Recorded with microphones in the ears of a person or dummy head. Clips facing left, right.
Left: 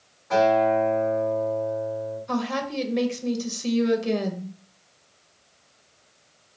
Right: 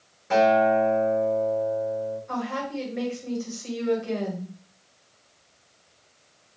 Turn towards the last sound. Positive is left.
turn(degrees=55)  # may be behind; listen again after turning